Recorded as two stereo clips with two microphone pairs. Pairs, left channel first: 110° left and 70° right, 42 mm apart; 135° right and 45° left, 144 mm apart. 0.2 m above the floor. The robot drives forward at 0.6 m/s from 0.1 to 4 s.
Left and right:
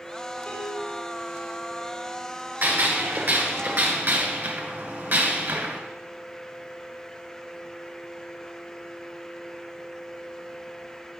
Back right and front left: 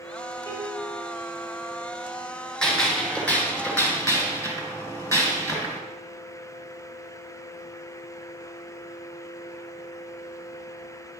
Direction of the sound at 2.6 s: 50° right.